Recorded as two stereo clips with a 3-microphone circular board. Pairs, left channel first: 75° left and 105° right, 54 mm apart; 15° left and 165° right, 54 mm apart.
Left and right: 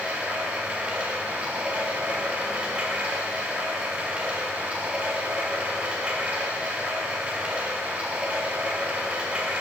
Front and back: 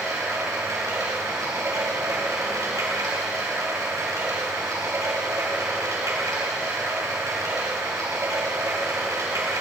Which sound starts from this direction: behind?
Running water, at 0.0 s.